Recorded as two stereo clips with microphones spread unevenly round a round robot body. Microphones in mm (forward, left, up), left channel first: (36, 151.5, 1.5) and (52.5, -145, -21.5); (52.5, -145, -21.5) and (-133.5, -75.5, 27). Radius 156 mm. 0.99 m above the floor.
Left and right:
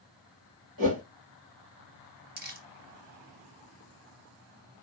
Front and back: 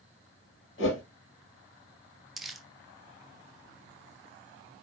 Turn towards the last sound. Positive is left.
turn(degrees=-130)